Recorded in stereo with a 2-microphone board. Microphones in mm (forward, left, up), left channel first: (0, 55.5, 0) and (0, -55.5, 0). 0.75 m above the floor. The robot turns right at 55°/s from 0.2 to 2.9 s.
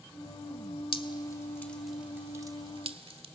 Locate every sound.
0.9 s dripping: 50° left (ahead or behind), 1.0 m; by 3.2 s 55° right (ahead or behind), 1.0 m